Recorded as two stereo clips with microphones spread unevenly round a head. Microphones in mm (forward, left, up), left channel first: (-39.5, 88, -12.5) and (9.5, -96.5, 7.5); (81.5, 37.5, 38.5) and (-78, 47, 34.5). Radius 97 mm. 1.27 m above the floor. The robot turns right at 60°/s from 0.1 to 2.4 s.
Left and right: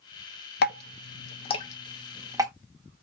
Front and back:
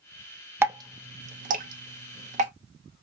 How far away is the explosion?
No explosion in this recording.